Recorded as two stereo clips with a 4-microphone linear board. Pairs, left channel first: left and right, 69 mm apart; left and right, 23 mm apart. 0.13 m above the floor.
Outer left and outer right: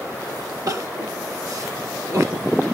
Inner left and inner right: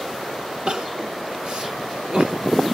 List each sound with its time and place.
0.7 s crying: 50° right (ahead or behind), 1.4 m